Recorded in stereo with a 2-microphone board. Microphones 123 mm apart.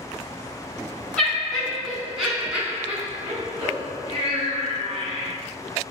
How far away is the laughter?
About 1.9 m.